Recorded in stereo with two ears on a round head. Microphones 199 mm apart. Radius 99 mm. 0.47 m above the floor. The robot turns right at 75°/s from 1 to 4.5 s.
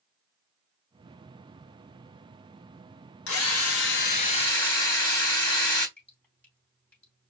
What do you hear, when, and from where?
3.3 s a drill: 65° left, 3.5 m; by 5.9 s 160° left, 3.5 m
6.0 s dripping: 10° left (ahead or behind), 3 m